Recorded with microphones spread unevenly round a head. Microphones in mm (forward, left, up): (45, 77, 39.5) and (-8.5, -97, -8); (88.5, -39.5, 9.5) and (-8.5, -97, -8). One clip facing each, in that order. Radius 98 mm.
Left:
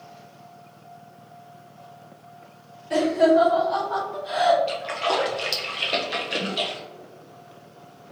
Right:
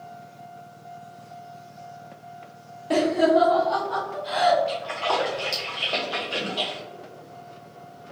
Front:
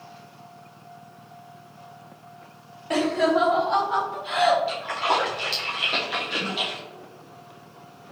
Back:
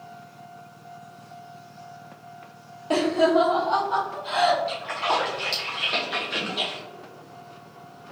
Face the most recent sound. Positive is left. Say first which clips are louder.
# left 1 dB, front 1 dB
turn(degrees=105)